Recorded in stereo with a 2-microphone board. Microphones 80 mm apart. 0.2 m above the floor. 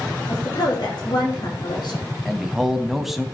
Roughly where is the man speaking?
Centre.